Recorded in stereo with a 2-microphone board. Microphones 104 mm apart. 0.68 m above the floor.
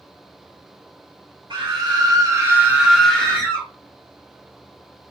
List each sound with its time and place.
1.5 s a scream: 50° right (ahead or behind), 1.3 m; by 3.7 s 30° left (ahead or behind), 0.9 m